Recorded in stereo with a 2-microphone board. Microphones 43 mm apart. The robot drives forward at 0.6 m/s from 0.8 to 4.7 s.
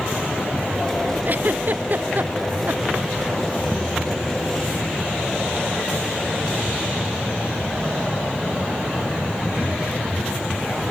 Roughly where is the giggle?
Right.